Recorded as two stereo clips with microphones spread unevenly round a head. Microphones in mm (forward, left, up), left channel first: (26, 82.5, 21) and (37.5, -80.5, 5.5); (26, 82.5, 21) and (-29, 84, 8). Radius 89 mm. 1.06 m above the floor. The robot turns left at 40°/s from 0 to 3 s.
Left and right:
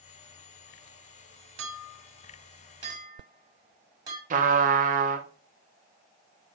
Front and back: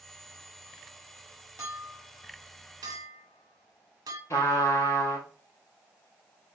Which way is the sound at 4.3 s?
45° right.